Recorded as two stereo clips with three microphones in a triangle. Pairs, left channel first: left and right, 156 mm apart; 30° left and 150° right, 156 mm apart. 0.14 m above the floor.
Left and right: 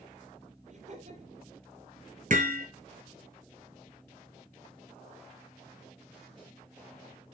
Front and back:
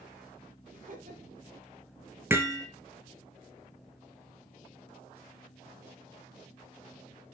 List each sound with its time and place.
0.7 s laughter: 125° right, 3.5 m
2.3 s hammering: 75° right, 2.5 m